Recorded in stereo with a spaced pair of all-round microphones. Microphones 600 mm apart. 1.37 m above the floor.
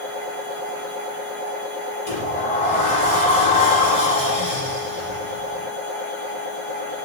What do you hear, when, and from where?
0.0 s a machine running: 55° right (ahead or behind), 6 m
2.1 s a sliding door: 75° left (ahead or behind), 5.5 m